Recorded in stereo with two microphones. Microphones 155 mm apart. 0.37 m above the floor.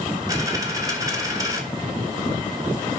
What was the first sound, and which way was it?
A dropped coin, 25° right (ahead or behind).